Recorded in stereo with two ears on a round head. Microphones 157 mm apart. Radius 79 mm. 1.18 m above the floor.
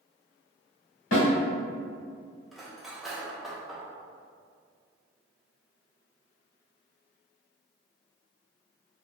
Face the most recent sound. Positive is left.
turn(degrees=0)  # may be behind; listen again after turning